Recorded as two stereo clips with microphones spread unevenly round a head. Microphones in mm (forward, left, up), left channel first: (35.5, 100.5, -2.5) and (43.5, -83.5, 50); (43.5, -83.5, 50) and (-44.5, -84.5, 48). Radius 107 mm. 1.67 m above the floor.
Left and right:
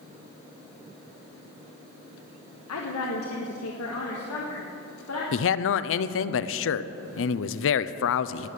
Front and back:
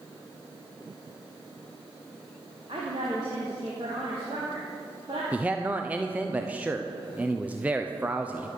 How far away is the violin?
No violin in this recording.